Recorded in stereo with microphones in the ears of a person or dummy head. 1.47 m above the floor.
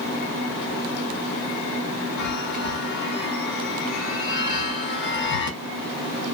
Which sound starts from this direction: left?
A chime, at 2.2 s.